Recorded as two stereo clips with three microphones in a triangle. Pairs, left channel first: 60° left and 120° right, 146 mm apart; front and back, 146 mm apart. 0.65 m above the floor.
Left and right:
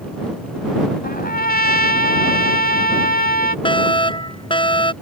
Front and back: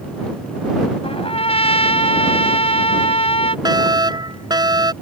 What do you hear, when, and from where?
1.0 s a trumpet: 50° left
3.6 s a fire alarm: 115° left